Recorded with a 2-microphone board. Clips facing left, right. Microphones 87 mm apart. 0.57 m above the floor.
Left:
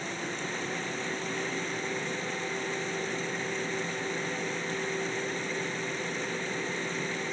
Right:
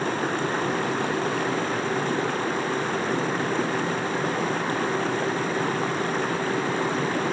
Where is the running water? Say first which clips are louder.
Right 10 dB; 60° right (ahead or behind).